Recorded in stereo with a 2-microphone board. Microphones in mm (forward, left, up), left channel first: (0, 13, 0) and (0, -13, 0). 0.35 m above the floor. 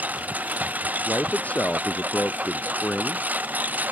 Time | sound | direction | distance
0.0 | a lawn mower | 75° right (ahead or behind) | ?
1.1 | a man speaking | 65° left (ahead or behind) | ?